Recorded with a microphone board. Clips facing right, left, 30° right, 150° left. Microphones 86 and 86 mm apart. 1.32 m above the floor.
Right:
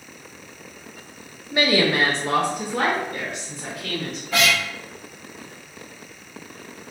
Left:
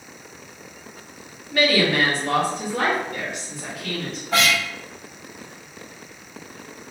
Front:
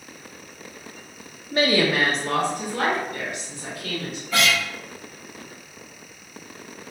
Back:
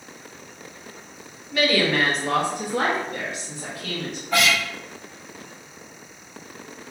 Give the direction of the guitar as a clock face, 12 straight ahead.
8 o'clock.